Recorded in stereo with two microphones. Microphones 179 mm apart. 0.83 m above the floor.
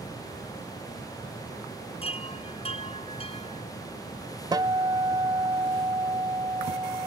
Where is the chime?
35° left (ahead or behind).